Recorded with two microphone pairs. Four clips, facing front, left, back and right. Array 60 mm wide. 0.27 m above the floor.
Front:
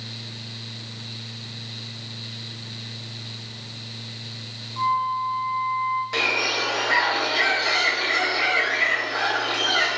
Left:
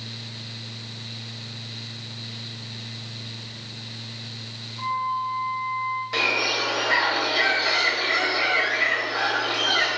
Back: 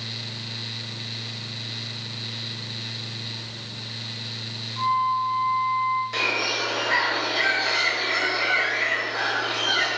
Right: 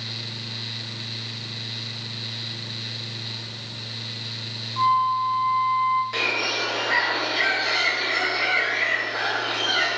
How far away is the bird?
About 0.8 m.